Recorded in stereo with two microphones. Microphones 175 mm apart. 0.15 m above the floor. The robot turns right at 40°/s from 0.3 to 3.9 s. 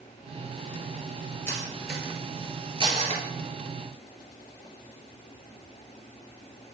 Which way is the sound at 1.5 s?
15° left (ahead or behind).